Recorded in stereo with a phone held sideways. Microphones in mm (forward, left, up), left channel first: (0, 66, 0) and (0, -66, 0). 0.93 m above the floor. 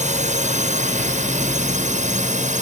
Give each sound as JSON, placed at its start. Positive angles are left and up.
{"t": 0.0, "sound": "a drone", "side_deg": -65}